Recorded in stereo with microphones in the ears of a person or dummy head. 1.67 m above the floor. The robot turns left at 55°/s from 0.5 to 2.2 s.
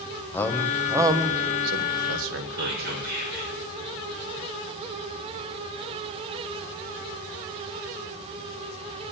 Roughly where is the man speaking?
Centre.